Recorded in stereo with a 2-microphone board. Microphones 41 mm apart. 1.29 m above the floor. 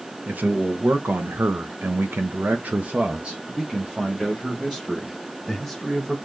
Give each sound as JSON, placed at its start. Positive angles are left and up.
{"t": 0.2, "sound": "a man speaking", "side_deg": -45, "distance_m": 1.3}